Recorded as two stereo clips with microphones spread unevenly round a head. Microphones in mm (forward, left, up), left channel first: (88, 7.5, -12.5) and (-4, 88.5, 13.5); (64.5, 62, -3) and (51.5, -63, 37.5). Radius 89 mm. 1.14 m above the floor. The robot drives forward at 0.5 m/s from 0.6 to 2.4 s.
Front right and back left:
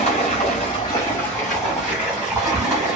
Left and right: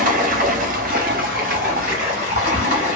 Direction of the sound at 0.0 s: 105° right.